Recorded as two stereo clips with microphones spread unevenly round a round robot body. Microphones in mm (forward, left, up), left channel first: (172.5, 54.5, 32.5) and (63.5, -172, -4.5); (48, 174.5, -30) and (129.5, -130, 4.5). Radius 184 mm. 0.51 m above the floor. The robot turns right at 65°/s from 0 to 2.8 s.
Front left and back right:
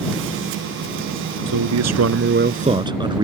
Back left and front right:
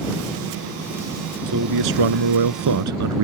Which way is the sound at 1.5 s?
130° right.